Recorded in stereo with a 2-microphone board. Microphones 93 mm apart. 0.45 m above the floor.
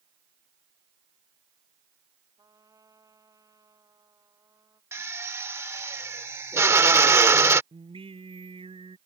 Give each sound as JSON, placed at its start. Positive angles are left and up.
{"t": 2.4, "sound": "a trumpet", "side_deg": -40}
{"t": 4.9, "sound": "a drill", "side_deg": -30}
{"t": 7.7, "sound": "singing", "side_deg": -85}